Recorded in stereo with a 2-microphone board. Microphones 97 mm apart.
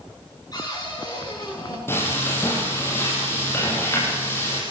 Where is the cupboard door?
40° left (ahead or behind), 9.5 m.